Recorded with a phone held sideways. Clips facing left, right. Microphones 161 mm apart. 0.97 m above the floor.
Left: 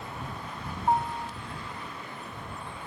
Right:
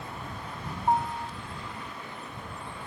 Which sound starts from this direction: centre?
A piano, at 0.9 s.